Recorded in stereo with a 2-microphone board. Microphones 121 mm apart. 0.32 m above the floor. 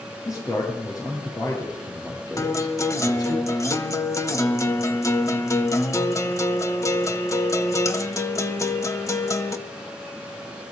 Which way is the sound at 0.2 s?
30° left (ahead or behind).